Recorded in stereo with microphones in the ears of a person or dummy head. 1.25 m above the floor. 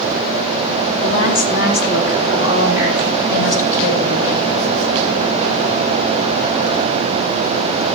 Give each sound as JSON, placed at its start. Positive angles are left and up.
{"t": 1.0, "sound": "a woman speaking", "side_deg": 75, "distance_m": 2.5}